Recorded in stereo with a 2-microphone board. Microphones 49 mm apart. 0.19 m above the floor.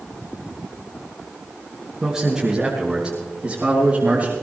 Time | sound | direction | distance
2.0 | a man speaking | 10° right (ahead or behind) | 3 m